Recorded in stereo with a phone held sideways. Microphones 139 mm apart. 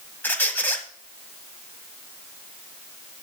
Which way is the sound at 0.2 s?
15° left (ahead or behind).